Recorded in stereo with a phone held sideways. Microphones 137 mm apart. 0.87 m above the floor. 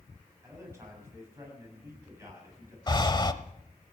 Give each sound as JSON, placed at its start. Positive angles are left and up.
{"t": 0.4, "sound": "a man speaking", "side_deg": -20, "distance_m": 7.0}
{"t": 2.9, "sound": "breathing", "side_deg": 30, "distance_m": 0.9}